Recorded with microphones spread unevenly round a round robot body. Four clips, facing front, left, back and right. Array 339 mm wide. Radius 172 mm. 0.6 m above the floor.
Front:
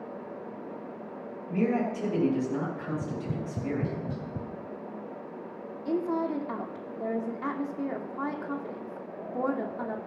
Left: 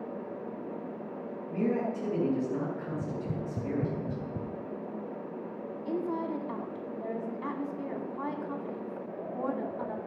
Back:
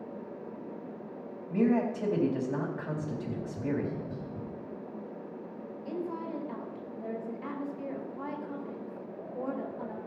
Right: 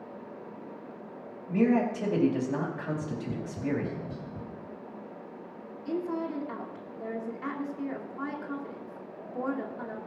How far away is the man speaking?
About 3.5 m.